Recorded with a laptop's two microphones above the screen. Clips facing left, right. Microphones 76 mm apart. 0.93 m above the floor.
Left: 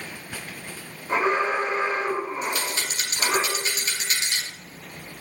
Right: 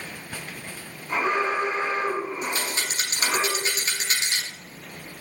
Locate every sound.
1.1 s an alarm: 30° left (ahead or behind), 2.5 m
2.4 s a rattle: 35° right (ahead or behind), 2.5 m